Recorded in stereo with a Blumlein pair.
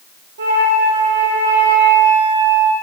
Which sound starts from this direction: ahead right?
A flute, at 0.4 s.